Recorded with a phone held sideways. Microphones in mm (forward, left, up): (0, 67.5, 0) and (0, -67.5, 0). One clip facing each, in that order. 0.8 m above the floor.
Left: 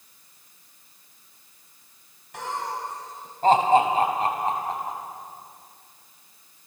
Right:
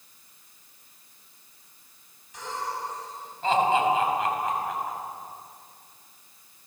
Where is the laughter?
60° left (ahead or behind), 5.5 m; by 5.0 s 25° left (ahead or behind), 5.5 m.